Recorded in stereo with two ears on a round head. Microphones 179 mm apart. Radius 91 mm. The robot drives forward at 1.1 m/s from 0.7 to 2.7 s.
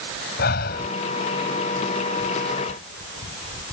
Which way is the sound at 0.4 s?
50° left (ahead or behind).